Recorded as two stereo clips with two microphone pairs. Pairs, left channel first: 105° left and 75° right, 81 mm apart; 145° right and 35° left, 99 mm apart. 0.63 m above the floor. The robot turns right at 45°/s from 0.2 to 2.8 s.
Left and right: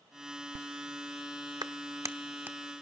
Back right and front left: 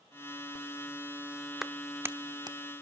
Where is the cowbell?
I don't hear a cowbell.